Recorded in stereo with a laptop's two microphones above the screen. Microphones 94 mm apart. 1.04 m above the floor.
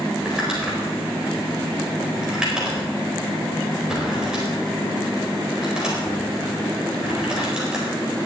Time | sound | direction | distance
0.2 | crumpling | 10° right (ahead or behind) | 4.5 m